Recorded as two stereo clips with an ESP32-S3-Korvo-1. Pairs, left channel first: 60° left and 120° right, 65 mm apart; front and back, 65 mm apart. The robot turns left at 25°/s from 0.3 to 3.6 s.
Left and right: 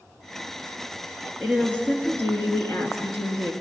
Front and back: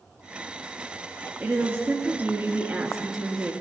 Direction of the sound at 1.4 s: 140° left.